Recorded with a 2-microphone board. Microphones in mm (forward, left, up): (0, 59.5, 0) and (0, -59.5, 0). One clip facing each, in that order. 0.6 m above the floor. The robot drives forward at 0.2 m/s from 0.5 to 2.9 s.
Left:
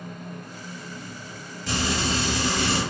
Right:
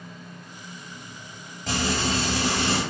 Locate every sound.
1.7 s frying: 45° right (ahead or behind), 0.7 m; by 2.8 s 60° right (ahead or behind), 0.6 m